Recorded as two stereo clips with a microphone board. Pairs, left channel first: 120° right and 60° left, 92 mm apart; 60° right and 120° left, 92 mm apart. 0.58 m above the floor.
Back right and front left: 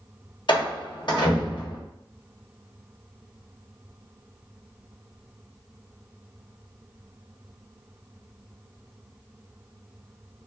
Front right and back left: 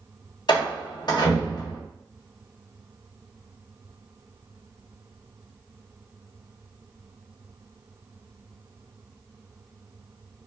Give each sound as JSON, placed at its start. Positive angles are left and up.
{"t": 0.5, "sound": "a door slam", "azimuth_deg": -95, "distance_m": 0.9}